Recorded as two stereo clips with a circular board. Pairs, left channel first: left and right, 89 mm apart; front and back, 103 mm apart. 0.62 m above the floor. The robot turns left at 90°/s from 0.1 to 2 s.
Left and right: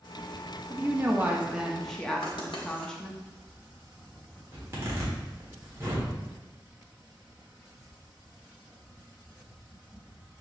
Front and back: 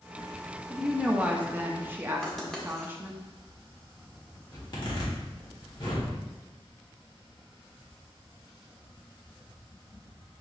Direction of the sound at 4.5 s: 35° right.